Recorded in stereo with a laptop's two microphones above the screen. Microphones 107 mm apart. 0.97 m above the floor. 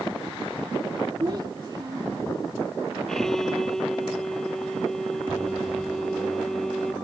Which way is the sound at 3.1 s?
5° left (ahead or behind).